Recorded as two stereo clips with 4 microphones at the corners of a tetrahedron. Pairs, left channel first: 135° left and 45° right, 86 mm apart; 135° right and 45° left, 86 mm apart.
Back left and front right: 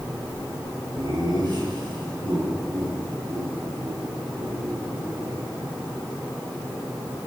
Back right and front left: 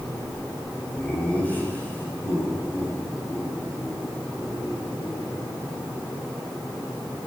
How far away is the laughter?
About 7 m.